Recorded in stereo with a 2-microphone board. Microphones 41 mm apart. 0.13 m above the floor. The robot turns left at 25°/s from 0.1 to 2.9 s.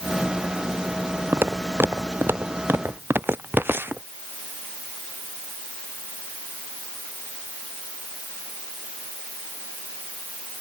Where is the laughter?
I don't hear laughter.